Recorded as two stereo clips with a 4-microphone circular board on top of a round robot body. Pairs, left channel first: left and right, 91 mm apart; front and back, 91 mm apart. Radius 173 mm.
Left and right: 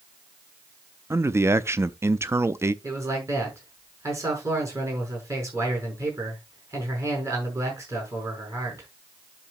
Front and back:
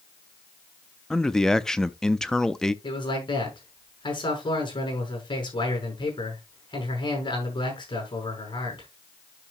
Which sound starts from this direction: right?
A man speaking, at 1.1 s.